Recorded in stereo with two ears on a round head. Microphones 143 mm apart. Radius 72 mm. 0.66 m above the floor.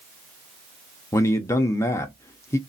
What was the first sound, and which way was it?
A man speaking, 20° left (ahead or behind).